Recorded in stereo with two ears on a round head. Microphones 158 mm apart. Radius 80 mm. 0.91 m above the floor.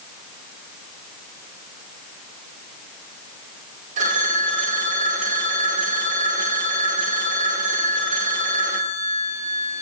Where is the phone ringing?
45° right (ahead or behind), 2 m.